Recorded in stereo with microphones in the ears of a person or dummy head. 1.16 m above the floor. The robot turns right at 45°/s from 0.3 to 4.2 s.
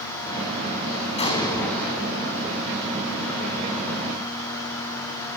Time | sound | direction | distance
1.2 | an explosion | 150° left | 3.5 m